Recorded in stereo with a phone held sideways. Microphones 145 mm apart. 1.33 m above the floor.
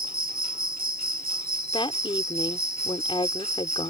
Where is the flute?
I don't hear a flute.